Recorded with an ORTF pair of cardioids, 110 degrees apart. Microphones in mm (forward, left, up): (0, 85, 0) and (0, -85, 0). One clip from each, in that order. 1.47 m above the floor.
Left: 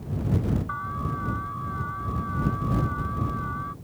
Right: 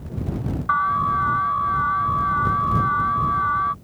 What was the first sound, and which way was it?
An alarm, 70° right.